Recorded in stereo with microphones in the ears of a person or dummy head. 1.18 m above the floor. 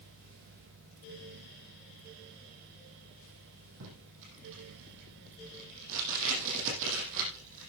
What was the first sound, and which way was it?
Tape being pulled, 70° right (ahead or behind).